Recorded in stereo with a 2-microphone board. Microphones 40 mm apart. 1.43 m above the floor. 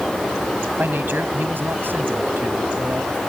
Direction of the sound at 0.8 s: 60° right (ahead or behind).